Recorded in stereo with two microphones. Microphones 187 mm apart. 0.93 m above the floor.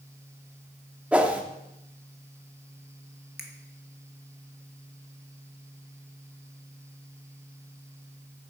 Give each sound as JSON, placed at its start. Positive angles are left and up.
{"t": 1.1, "sound": "a whoosh", "side_deg": -5, "distance_m": 0.9}
{"t": 3.4, "sound": "a finger snap", "side_deg": -60, "distance_m": 1.2}